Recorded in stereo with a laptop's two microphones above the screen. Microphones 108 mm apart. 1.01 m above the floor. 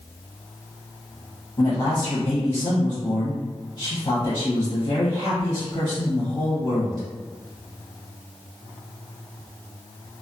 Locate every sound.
1.6 s a man speaking: 25° left (ahead or behind), 0.8 m